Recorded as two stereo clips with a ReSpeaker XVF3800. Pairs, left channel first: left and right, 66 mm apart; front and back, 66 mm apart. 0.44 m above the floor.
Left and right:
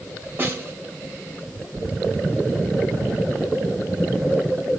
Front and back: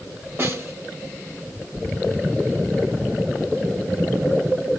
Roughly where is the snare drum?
Behind right.